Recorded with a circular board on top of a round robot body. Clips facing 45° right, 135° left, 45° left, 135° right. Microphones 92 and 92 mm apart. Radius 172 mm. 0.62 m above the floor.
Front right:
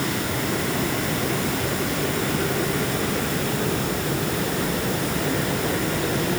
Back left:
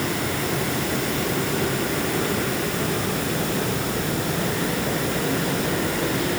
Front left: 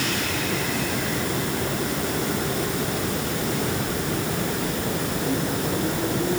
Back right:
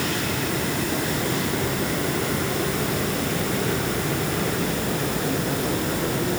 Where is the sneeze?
I don't hear a sneeze.